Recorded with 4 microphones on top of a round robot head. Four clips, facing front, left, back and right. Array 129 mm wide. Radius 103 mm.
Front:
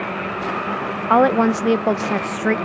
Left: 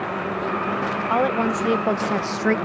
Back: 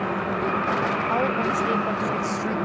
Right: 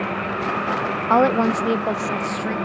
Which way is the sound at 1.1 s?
30° right.